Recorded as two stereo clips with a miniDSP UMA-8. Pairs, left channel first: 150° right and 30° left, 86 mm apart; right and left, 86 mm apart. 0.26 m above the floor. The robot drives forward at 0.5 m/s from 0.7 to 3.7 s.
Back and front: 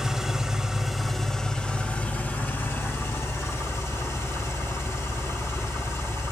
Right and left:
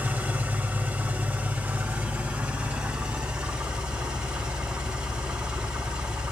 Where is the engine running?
105° left, 1.2 m; by 6.3 s 165° left, 2.0 m.